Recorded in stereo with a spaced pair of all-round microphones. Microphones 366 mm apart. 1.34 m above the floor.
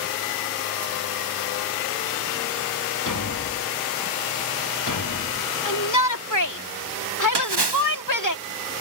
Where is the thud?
50° left (ahead or behind).